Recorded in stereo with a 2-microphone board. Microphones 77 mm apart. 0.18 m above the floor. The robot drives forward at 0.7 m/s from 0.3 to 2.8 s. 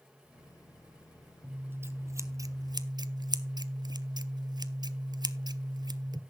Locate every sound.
1.4 s scissors: 25° right (ahead or behind), 1.2 m; by 6.2 s 75° right (ahead or behind), 0.6 m